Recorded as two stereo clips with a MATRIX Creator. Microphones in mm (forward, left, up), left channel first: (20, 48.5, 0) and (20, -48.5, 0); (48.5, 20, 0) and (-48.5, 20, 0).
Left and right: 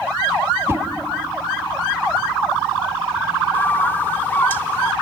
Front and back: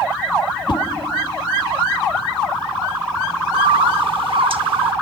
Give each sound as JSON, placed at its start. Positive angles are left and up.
{"t": 0.7, "sound": "a whoosh", "azimuth_deg": -30, "distance_m": 1.6}
{"t": 3.5, "sound": "a bird", "azimuth_deg": 155, "distance_m": 0.8}